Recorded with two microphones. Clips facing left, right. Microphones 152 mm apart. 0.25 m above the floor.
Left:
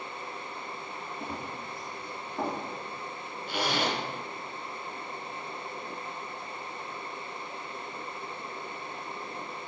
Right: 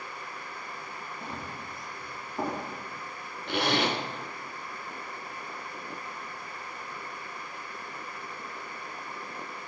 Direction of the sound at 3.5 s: 65° right (ahead or behind).